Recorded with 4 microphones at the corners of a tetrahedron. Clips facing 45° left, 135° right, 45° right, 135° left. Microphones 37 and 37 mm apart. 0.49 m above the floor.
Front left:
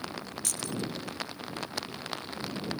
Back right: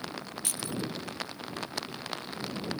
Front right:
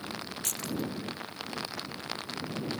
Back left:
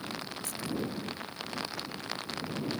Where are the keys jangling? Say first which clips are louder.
Even, even; 65° right.